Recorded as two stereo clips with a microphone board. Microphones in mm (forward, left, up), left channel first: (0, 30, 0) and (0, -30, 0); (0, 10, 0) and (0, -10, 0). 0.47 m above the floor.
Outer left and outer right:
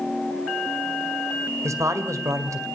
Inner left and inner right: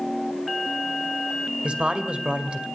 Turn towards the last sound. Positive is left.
turn(degrees=-55)  # may be behind; listen again after turning